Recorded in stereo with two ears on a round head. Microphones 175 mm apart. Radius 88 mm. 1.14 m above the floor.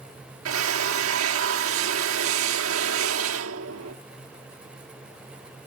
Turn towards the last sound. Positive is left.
turn(degrees=-80)